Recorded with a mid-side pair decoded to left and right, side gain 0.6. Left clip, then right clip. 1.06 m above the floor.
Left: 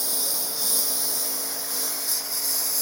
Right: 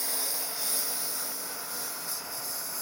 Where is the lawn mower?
30° left; by 2.8 s 50° left.